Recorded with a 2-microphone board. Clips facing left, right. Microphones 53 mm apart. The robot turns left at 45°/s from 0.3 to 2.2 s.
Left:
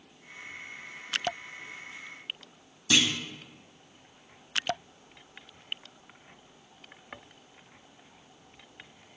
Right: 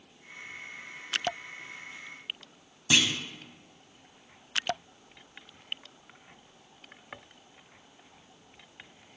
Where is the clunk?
20° right (ahead or behind), 0.8 m.